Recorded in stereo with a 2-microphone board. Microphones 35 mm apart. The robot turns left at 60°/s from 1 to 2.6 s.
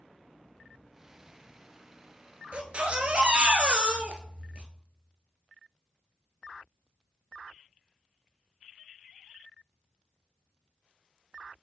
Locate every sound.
2.5 s a baby crying: 40° right (ahead or behind), 1.0 m